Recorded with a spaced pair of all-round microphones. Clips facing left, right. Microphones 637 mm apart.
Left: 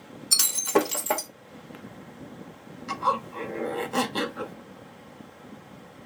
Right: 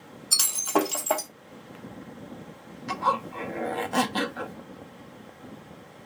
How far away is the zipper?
About 0.5 m.